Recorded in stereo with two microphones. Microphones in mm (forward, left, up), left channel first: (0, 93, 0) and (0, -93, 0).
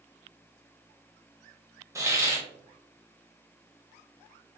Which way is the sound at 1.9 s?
15° right (ahead or behind).